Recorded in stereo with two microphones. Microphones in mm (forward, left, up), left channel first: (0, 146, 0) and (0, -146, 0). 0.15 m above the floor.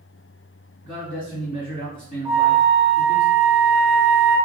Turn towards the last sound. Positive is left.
turn(degrees=-20)  # may be behind; listen again after turning